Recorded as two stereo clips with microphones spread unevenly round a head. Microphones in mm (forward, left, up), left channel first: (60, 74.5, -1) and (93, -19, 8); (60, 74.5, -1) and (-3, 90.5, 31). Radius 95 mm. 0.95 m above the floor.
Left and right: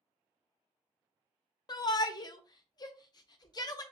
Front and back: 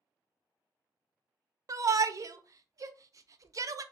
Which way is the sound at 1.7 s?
115° left.